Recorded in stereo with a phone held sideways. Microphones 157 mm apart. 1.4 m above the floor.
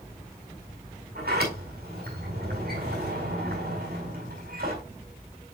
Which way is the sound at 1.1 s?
80° right.